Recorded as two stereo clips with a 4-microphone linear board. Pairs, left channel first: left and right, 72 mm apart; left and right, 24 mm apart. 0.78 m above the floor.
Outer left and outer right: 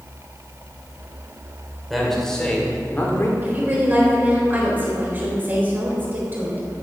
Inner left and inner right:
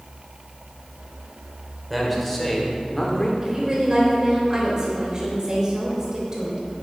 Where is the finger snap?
I don't hear a finger snap.